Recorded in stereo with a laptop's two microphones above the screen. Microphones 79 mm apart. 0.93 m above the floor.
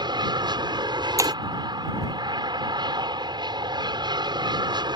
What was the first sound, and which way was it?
An aircraft, 65° right (ahead or behind).